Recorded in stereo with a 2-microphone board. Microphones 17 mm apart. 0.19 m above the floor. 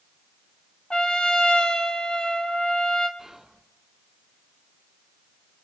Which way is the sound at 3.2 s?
30° right (ahead or behind).